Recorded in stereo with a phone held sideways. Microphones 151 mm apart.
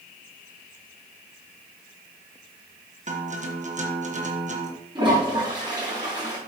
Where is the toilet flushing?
30° right (ahead or behind), 5 m.